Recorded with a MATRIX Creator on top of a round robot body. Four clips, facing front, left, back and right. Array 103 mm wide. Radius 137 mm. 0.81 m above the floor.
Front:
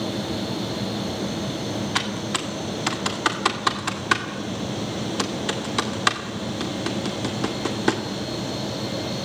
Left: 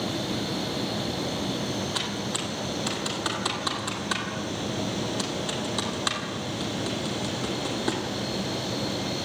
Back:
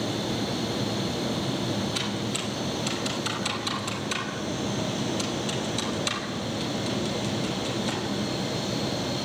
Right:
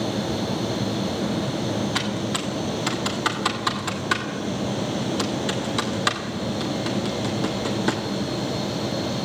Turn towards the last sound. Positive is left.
turn(degrees=-20)